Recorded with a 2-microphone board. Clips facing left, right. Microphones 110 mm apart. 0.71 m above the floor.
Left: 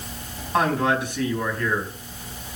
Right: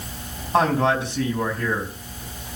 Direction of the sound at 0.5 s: 30° right (ahead or behind).